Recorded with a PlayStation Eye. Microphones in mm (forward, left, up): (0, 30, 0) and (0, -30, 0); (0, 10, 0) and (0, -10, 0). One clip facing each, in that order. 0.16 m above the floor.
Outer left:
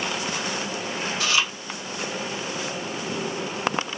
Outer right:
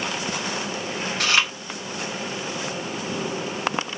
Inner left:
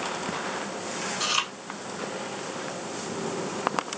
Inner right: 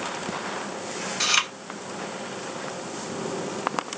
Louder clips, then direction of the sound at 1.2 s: Outer right 3 dB, inner right 5 dB; 60° right (ahead or behind).